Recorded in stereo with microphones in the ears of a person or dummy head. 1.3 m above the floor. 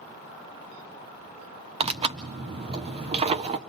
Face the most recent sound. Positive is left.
turn(degrees=-30)  # may be behind; listen again after turning